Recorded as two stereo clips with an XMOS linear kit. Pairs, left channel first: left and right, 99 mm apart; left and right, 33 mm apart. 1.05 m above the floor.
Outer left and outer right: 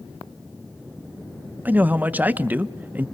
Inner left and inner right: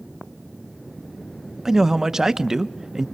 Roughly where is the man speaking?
Centre.